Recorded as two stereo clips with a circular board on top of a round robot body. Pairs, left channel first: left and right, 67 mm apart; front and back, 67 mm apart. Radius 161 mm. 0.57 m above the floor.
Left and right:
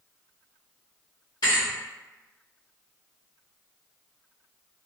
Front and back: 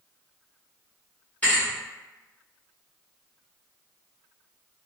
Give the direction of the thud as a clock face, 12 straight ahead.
10 o'clock.